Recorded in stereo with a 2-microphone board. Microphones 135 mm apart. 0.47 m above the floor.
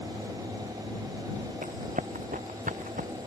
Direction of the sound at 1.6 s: 75° right (ahead or behind).